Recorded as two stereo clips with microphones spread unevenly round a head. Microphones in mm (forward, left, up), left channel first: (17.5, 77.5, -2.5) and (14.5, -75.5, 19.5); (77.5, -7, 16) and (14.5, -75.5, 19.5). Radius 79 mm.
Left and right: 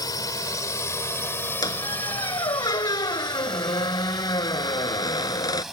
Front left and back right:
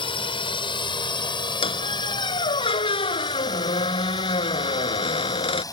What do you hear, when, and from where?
0.0 s a drone: 25° left; by 5.7 s 5° right
1.6 s a squeak: 20° left